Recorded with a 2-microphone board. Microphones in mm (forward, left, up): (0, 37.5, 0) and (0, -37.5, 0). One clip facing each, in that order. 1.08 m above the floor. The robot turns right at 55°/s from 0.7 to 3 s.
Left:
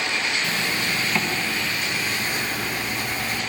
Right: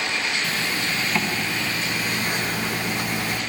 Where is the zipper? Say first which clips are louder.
Even; 155° left, 1.2 m; by 3.4 s 80° right, 1.2 m.